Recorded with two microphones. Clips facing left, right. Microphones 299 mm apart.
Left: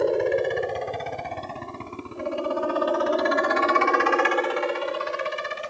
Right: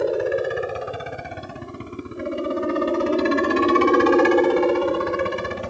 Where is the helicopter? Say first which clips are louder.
Even; centre (ahead or behind); by 5.7 s 65° right (ahead or behind).